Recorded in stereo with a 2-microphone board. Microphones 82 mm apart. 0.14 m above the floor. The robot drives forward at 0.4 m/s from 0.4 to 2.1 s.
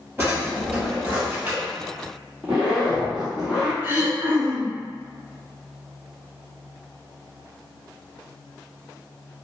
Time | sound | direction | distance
0.2 | a drawer | 25° right (ahead or behind) | 1.6 m
2.4 | a zipper | 10° right (ahead or behind) | 1.5 m
3.8 | throat clearing | 30° right (ahead or behind) | 1.8 m